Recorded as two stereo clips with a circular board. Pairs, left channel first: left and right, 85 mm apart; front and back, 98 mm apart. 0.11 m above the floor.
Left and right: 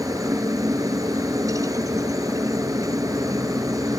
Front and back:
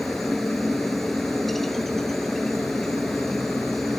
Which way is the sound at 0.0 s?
90° right.